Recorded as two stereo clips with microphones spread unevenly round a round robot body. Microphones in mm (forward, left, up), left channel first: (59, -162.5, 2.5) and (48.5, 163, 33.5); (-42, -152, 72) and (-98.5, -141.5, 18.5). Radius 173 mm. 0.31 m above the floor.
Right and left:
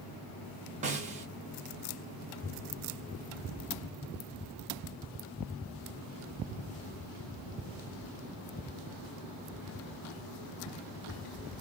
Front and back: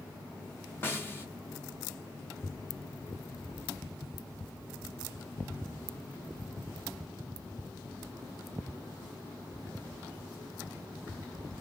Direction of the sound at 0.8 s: 135° left.